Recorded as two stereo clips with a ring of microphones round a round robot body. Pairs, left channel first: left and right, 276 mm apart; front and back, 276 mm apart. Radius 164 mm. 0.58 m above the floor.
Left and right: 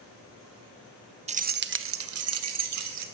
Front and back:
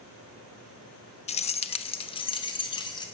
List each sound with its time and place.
1.3 s keys jangling: 45° right, 0.5 m; by 3.0 s 75° right, 1.2 m